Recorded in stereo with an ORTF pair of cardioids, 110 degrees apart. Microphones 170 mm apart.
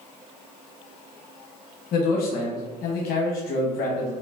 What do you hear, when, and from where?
1.9 s a man speaking: 65° left, 1.0 m